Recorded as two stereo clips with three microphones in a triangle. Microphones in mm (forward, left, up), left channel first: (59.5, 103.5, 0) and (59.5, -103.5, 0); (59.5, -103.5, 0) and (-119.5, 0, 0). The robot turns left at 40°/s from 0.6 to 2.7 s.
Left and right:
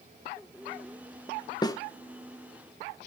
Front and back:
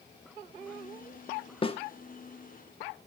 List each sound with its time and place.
1.6 s a snare drum: 25° left, 0.8 m; by 1.8 s 15° left, 0.8 m